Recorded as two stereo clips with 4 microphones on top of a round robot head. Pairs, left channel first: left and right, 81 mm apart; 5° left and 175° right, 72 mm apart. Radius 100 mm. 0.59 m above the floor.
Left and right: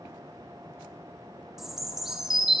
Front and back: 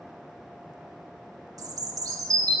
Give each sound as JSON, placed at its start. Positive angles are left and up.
{"t": 1.6, "sound": "a bird", "azimuth_deg": -170, "distance_m": 1.5}